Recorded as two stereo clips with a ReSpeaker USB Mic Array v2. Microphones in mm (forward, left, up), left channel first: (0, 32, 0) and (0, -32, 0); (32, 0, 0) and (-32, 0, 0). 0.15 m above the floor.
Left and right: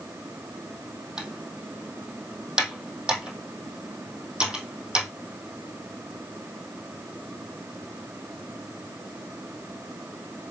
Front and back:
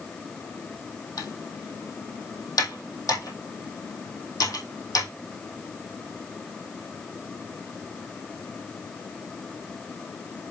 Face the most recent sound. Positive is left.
turn(degrees=-15)